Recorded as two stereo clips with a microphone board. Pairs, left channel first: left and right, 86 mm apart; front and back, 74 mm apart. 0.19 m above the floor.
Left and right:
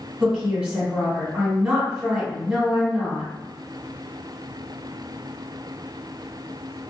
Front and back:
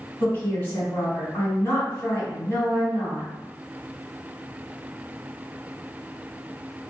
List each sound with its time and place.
0.2 s a woman speaking: 20° right, 1.7 m